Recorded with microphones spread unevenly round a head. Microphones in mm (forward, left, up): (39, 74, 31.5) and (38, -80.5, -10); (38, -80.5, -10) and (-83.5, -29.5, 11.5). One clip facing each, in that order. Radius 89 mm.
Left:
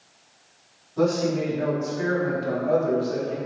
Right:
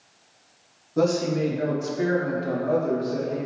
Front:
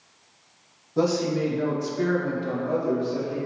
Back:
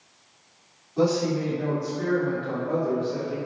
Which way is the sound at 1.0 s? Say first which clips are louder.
Even, even; 60° right.